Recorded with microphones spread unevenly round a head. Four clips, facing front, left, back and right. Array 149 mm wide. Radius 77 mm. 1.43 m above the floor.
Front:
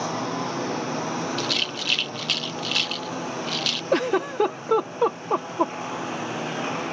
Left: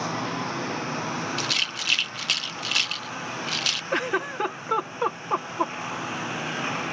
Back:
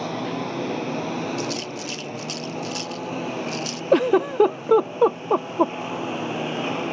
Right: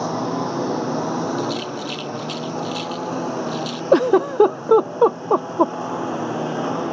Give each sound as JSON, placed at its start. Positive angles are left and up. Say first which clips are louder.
{"t": 0.0, "sound": "a lawn mower", "louder": "right 6 dB, even", "azimuth_deg": -105}
{"t": 1.4, "sound": "a rattle", "louder": "right 8 dB, back 1 dB", "azimuth_deg": 55}
{"t": 3.9, "sound": "a giggle", "louder": "right 13 dB, back 5 dB", "azimuth_deg": -115}